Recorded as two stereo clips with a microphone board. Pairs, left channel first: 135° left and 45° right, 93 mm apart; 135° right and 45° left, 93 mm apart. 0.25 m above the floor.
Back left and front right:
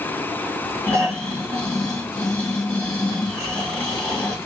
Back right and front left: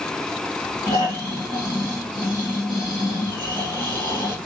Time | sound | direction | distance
0.9 | snoring | 150° right | 2.5 m